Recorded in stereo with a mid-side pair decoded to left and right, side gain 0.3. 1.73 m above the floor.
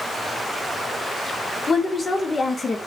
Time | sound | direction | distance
1.7 | a woman speaking | 45° left | 0.6 m